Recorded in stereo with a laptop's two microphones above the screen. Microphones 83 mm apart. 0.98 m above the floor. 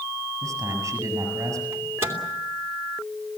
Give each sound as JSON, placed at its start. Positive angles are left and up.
{"t": 0.4, "sound": "a man speaking", "side_deg": -40, "distance_m": 6.5}
{"t": 1.7, "sound": "a microwave", "side_deg": -30, "distance_m": 2.5}